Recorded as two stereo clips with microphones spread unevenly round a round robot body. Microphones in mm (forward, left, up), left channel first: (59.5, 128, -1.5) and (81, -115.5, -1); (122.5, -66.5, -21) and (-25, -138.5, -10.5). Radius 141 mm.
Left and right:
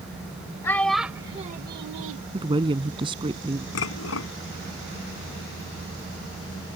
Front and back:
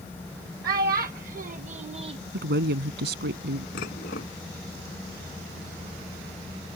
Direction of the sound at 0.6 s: 175° left.